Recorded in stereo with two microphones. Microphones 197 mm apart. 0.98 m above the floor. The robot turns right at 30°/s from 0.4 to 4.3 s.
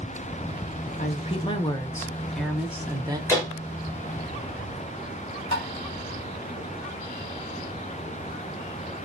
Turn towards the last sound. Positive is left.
turn(degrees=70)  # may be behind; listen again after turning